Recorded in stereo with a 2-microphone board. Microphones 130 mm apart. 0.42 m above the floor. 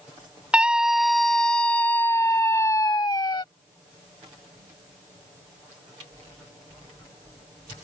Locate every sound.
0.5 s a scream: 10° right (ahead or behind); by 3.4 s 35° left (ahead or behind)